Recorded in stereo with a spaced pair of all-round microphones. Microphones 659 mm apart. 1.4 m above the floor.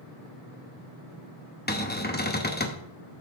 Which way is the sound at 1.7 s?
15° left (ahead or behind).